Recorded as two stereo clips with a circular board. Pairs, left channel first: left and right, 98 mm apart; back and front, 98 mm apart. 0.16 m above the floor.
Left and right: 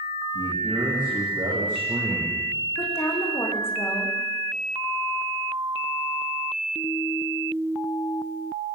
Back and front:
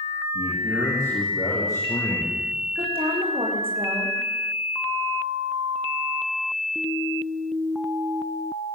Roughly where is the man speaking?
Behind right.